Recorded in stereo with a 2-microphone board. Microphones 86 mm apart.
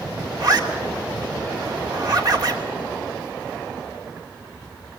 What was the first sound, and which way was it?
A zipper, 50° right (ahead or behind).